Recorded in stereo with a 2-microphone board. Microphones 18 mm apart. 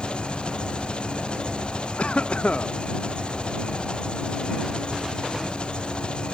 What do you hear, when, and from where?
0.0 s an engine running: 60° left (ahead or behind)
2.0 s a cough: 85° left